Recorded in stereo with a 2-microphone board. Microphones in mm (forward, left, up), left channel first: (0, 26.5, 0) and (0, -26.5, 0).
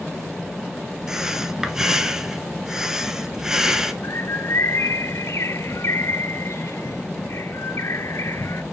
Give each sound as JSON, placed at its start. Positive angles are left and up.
{"t": 1.1, "sound": "breathing", "side_deg": -10, "distance_m": 1.1}
{"t": 4.0, "sound": "a bird", "side_deg": 60, "distance_m": 0.7}